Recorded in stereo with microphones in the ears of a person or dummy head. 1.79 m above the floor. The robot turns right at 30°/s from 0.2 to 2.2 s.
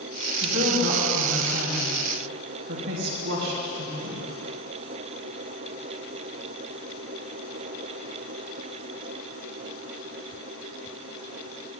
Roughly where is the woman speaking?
Right.